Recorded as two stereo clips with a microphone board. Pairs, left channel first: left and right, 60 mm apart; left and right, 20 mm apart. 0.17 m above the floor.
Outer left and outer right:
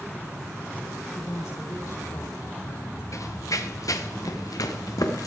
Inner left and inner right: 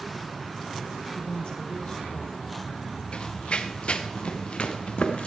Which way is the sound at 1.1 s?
65° left (ahead or behind).